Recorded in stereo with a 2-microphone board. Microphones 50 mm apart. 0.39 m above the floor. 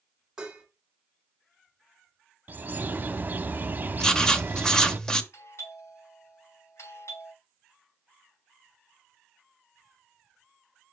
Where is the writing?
15° left (ahead or behind), 0.9 m.